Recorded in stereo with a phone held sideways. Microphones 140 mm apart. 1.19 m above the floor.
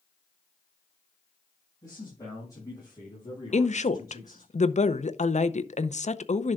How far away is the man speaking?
About 5.5 m.